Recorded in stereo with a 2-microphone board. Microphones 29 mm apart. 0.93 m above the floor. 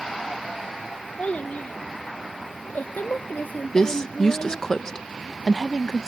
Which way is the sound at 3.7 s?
20° left (ahead or behind).